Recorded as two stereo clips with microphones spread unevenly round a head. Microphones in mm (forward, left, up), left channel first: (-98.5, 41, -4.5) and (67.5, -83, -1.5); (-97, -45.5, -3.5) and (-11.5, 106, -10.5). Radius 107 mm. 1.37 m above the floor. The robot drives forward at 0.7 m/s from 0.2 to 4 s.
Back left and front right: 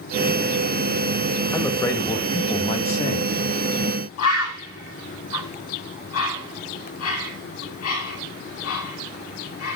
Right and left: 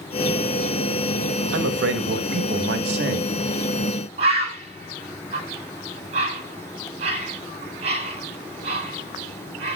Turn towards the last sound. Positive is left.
turn(degrees=115)